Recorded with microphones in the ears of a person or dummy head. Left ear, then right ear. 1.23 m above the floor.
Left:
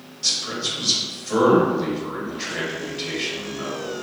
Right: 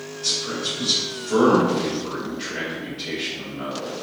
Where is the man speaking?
20° left (ahead or behind), 0.9 m.